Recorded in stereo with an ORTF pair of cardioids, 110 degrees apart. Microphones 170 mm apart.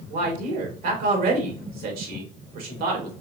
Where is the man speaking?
65° right, 3 m.